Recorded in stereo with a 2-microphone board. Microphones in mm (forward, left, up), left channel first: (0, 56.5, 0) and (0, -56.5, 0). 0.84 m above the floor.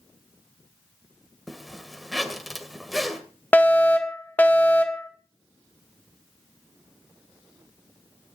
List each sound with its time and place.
1.5 s a zipper: centre (ahead or behind), 1.9 m
3.5 s a fire alarm: 15° left (ahead or behind), 1.8 m